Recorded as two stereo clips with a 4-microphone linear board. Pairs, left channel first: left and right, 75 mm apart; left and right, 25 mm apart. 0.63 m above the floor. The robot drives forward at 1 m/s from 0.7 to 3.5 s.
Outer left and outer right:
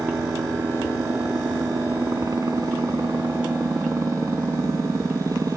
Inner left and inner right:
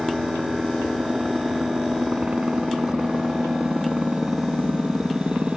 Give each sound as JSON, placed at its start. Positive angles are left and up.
{"t": 0.0, "sound": "a helicopter", "side_deg": -50}